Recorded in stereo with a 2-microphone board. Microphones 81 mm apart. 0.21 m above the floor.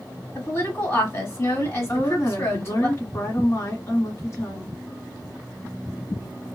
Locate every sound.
0.3 s a woman speaking: 35° left (ahead or behind), 1.8 m
1.9 s a woman speaking: 40° left (ahead or behind), 1.4 m